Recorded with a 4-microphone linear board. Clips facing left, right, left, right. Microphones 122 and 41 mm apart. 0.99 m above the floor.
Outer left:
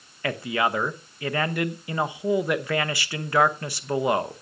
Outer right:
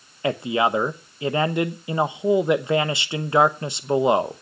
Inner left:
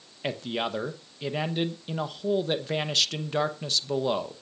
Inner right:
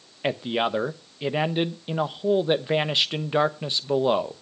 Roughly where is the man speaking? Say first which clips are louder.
Outer right 4 dB, inner right 5 dB; right.